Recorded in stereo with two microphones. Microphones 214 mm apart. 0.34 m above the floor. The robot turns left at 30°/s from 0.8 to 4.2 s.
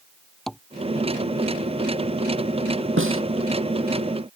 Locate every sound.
0.5 s tapping: centre (ahead or behind)
3.0 s a snare drum: 70° right (ahead or behind); by 3.2 s 75° right (ahead or behind)